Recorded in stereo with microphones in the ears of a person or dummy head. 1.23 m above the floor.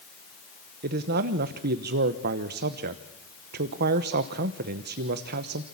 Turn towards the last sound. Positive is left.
turn(degrees=-50)  # may be behind; listen again after turning